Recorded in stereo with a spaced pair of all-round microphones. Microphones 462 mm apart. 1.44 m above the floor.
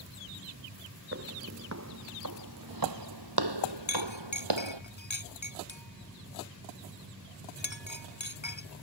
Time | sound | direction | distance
1.1 | footsteps | 30° right (ahead or behind) | ?
3.9 | a clink | 70° left (ahead or behind) | ?